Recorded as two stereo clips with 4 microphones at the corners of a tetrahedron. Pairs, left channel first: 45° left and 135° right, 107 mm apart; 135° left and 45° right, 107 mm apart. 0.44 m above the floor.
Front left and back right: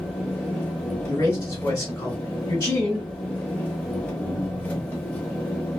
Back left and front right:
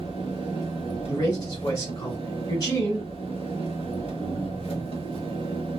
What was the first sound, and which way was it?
An engine running, 120° left.